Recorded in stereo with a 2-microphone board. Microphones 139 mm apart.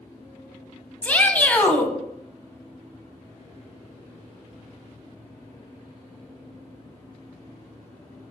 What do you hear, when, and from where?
1.0 s a shout: 10° left (ahead or behind), 1.4 m